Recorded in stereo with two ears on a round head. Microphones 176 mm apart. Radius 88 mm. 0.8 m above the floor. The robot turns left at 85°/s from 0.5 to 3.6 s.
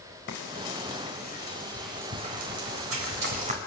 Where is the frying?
65° left (ahead or behind), 4 m; by 3.6 s 35° right (ahead or behind), 4 m.